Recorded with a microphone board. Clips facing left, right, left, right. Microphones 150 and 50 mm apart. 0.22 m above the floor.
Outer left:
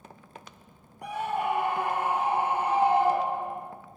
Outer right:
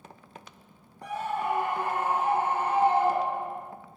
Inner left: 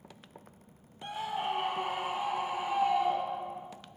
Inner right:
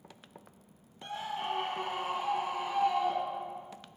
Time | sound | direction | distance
1.0 | a scream | 15° left (ahead or behind) | 6.5 m